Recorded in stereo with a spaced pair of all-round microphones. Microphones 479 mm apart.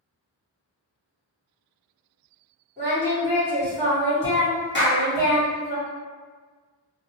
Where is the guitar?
I don't hear a guitar.